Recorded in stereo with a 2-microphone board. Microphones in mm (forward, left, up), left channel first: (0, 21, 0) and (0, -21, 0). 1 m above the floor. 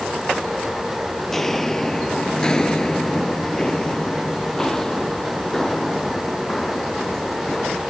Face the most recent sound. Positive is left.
turn(degrees=10)  # may be behind; listen again after turning